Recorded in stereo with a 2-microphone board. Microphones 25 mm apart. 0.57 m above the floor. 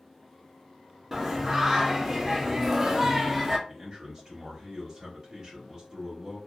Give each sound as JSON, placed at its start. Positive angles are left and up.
{"t": 1.1, "sound": "singing", "side_deg": -15, "distance_m": 0.6}
{"t": 3.7, "sound": "a man speaking", "side_deg": -30, "distance_m": 0.9}